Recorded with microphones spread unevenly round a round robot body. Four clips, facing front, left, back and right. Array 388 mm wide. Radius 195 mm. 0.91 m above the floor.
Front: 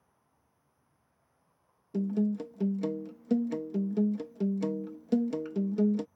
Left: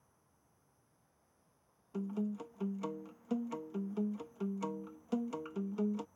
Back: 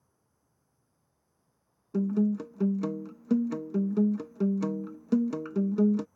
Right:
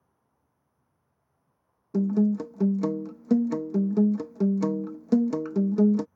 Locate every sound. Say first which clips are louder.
0.0 s an insect: even, front 3 dB; 120° left
1.9 s a guitar: right 15 dB, back 3 dB; 95° right